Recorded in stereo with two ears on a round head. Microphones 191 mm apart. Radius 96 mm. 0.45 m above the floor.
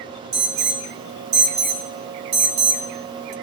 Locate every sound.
0.3 s an alarm: 55° right (ahead or behind), 1.7 m